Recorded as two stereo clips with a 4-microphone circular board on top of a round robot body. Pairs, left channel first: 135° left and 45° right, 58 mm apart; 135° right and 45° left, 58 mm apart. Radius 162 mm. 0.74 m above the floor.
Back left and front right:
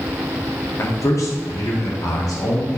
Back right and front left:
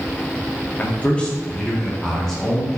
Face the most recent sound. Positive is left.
turn(degrees=140)